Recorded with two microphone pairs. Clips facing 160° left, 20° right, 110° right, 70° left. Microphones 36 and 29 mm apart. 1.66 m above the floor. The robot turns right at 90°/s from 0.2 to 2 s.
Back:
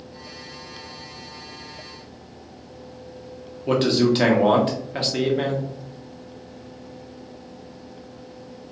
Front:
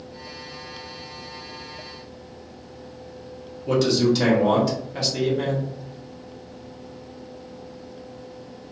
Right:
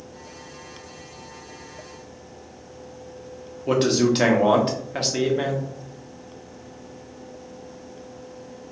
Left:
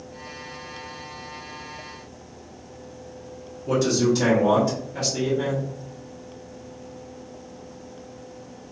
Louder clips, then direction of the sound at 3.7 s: Back 1 dB, right 1 dB; 150° right.